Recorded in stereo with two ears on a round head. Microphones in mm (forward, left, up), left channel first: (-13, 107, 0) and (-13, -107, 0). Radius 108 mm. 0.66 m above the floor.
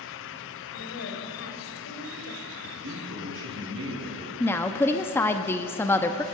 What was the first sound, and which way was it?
A woman speaking, 60° left (ahead or behind).